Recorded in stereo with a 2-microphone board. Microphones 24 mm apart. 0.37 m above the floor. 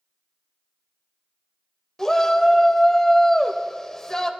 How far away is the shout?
About 1.3 m.